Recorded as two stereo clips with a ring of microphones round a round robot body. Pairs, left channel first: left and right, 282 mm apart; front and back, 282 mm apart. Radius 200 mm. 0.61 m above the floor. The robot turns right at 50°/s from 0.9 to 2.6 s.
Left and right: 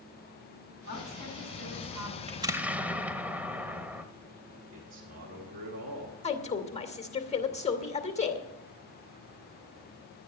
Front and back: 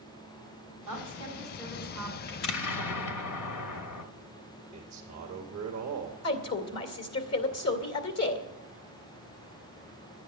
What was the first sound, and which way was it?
A woman speaking, 150° right.